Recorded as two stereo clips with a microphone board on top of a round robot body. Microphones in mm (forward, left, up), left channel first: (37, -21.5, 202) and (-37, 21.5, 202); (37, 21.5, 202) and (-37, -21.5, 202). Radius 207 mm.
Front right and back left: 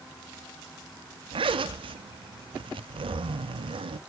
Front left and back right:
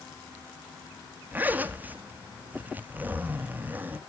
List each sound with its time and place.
1.3 s a zipper: 140° left, 0.6 m